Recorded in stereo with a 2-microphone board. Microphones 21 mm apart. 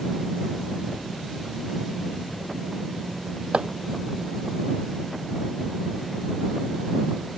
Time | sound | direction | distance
3.5 | chopping | 65° right (ahead or behind) | ?